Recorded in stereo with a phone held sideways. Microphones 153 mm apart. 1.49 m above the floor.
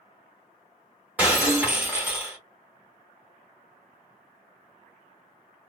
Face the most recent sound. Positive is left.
turn(degrees=-10)  # may be behind; listen again after turning